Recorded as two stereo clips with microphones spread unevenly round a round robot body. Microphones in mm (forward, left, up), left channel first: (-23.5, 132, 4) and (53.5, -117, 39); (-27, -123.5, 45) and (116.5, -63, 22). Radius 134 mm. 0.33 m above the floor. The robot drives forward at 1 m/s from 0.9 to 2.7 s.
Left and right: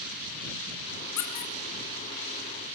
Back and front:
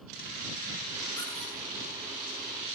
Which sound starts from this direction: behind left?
A squeak, at 1.2 s.